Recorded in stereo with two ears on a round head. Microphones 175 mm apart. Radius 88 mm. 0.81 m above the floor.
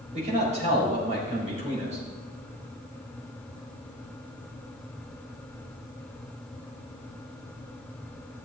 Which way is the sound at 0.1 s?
35° right (ahead or behind).